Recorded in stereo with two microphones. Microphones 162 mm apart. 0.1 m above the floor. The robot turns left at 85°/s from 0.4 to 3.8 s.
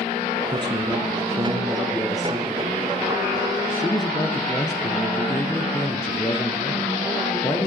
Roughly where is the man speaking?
Ahead right.